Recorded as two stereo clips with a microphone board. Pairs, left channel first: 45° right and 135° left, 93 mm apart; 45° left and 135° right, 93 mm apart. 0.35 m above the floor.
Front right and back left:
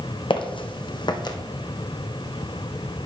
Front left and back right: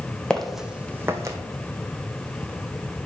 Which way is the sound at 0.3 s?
35° right.